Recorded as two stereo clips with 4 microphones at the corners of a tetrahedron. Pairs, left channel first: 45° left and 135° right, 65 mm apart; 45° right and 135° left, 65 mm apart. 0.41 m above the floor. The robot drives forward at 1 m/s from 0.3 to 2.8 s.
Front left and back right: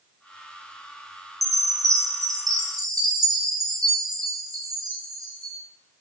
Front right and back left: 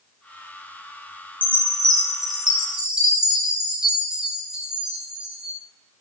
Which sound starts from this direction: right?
A chime, at 1.4 s.